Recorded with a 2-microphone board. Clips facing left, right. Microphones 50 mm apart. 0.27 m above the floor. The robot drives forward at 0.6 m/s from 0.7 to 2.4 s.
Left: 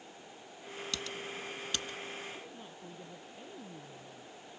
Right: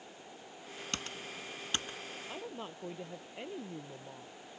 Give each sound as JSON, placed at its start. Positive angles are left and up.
{"t": 0.9, "sound": "typing on a keyboard", "side_deg": -40}
{"t": 2.3, "sound": "a woman speaking", "side_deg": -80}